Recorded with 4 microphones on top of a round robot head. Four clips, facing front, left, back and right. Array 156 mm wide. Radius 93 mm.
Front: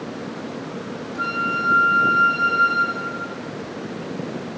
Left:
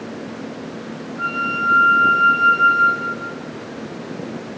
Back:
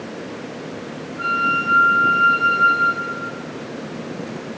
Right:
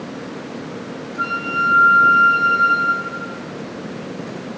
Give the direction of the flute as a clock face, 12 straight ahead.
3 o'clock.